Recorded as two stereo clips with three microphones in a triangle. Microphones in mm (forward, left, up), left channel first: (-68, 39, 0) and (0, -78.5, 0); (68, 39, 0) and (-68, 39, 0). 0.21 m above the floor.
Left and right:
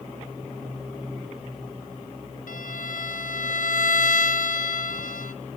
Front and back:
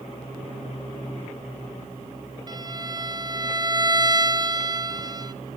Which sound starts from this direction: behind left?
A violin, at 2.5 s.